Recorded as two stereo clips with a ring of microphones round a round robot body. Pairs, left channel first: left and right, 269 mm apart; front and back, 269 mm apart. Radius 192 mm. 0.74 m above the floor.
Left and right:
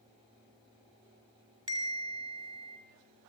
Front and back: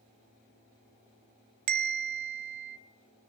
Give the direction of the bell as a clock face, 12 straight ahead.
6 o'clock.